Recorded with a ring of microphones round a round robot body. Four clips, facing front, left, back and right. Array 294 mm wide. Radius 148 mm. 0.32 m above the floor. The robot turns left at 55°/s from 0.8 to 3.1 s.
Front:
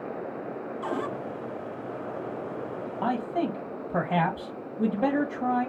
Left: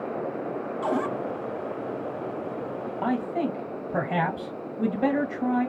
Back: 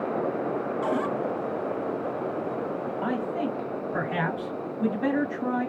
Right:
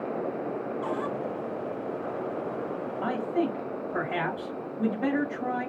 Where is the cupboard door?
115° left, 0.7 m; by 1.1 s 95° left, 0.7 m.